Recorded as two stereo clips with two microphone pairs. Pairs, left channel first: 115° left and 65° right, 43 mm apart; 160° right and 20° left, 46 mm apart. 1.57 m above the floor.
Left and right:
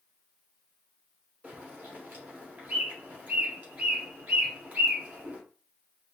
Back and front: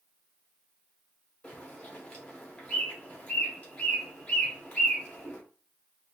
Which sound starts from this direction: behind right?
A bird, at 1.4 s.